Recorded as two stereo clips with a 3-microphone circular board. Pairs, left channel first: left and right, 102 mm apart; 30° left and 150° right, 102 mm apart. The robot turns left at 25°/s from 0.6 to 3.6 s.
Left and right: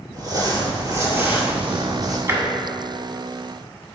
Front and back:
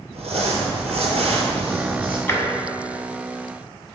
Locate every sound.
0.1 s crumpling: 140° right, 1.5 m; by 2.2 s straight behind, 1.5 m
2.3 s tapping: 30° right, 1.2 m; by 2.4 s 35° right, 1.2 m